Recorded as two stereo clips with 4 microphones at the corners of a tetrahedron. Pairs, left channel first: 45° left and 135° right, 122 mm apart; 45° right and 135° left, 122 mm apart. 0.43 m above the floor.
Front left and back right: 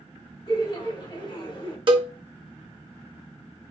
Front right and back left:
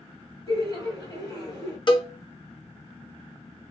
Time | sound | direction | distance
0.5 | laughter | 5° left | 2.5 m
1.9 | a cowbell | 90° right | 0.7 m